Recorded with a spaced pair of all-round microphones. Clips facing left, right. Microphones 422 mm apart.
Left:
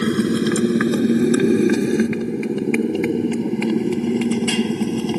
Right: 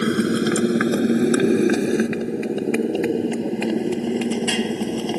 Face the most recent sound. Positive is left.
turn(degrees=20)  # may be behind; listen again after turning